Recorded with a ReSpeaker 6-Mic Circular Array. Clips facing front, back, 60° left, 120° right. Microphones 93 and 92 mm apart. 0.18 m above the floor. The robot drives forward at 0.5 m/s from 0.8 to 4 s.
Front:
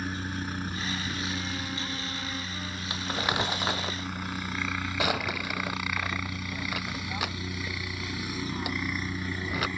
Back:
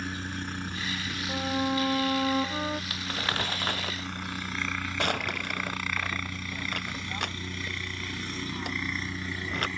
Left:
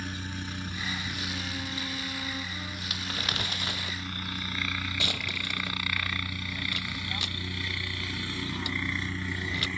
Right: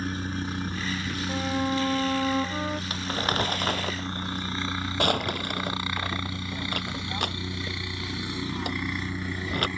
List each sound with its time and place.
0.0 s a helicopter: 80° right; by 9.8 s 65° right
1.3 s a violin: 145° right; by 2.8 s 150° right
2.9 s crumpling: 65° right; by 9.7 s 85° right